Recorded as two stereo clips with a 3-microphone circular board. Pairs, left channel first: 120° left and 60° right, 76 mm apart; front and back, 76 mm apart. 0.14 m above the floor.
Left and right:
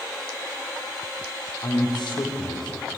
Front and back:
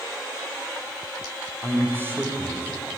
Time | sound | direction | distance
1.6 | a man speaking | 120° left | 6.5 m